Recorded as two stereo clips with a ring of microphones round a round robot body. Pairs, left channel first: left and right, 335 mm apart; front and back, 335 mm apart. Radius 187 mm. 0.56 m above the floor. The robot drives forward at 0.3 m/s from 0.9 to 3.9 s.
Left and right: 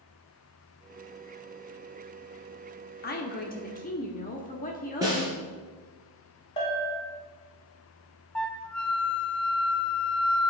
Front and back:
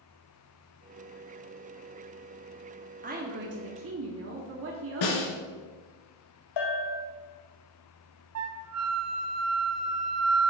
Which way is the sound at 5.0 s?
10° right.